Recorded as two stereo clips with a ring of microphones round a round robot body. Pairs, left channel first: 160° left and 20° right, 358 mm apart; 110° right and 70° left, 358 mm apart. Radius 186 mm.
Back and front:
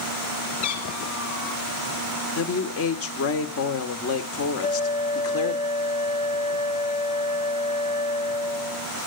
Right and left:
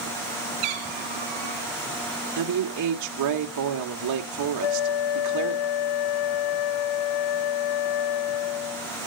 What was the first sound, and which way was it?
A cat meowing, 90° left.